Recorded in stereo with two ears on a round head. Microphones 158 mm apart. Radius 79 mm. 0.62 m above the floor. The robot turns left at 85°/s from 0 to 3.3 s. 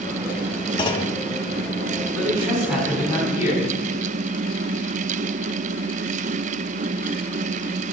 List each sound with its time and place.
0.8 s a clunk: 125° left, 0.8 m; by 1.2 s 95° left, 0.8 m
2.1 s a man speaking: 130° right, 4.5 m; by 3.7 s 135° left, 4.5 m